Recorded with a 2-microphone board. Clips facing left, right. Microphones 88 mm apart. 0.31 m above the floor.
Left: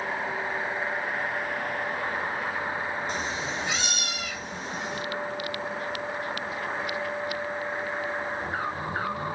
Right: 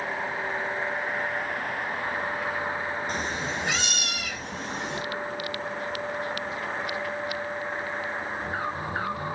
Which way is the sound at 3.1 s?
50° right (ahead or behind).